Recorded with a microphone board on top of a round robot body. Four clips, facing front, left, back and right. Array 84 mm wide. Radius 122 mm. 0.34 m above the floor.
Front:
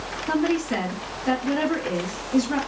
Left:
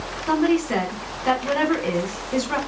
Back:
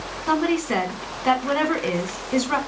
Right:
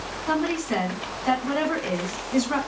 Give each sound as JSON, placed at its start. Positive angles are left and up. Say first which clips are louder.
{"t": 0.3, "sound": "a woman speaking", "louder": "left 5 dB, back 2 dB", "azimuth_deg": 165, "distance_m": 2.0}